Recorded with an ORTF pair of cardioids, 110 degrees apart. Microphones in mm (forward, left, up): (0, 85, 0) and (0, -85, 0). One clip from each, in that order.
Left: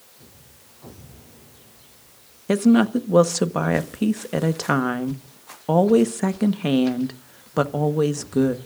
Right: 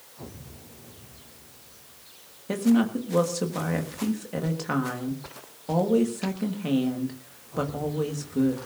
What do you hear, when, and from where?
2.5 s a woman speaking: 50° left, 1.3 m